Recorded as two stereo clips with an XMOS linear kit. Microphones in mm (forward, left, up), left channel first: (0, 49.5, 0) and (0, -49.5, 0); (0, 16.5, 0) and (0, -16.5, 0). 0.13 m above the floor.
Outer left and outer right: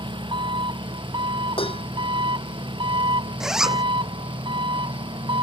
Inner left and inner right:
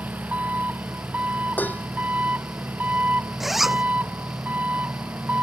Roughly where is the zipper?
Centre.